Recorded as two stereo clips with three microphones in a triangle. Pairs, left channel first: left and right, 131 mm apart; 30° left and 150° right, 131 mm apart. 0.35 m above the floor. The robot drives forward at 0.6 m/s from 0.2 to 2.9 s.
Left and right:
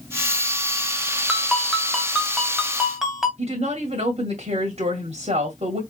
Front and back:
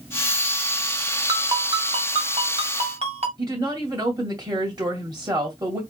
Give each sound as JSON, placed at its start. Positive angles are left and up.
{"t": 1.3, "sound": "a ringtone", "azimuth_deg": -175, "distance_m": 0.9}
{"t": 3.4, "sound": "a woman speaking", "azimuth_deg": -100, "distance_m": 1.8}